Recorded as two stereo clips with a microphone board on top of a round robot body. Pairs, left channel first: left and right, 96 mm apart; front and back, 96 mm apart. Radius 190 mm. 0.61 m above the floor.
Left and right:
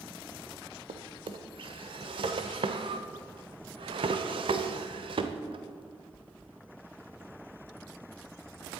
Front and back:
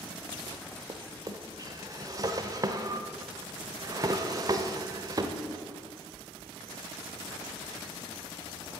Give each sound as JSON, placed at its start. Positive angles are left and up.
{"t": 0.9, "sound": "a drawer", "azimuth_deg": -125, "distance_m": 0.7}